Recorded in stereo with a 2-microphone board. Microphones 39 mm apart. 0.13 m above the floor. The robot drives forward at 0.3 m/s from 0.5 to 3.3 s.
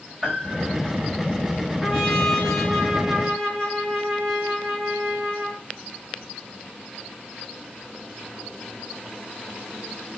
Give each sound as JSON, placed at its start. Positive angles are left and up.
{"t": 0.2, "sound": "a piano", "side_deg": 5, "distance_m": 8.0}
{"t": 1.8, "sound": "a trumpet", "side_deg": 10, "distance_m": 6.5}